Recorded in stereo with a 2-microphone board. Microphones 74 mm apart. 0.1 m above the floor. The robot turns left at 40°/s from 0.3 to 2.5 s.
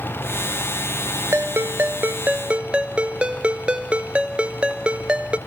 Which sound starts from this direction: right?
A ringtone, at 1.3 s.